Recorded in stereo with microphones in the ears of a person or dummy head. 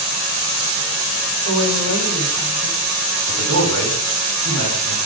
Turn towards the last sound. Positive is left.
turn(degrees=-70)  # may be behind; listen again after turning